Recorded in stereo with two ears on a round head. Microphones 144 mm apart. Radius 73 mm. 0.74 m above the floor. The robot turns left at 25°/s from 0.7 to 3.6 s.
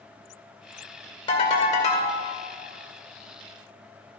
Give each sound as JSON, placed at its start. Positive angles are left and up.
{"t": 1.3, "sound": "a ringtone", "side_deg": 35, "distance_m": 2.0}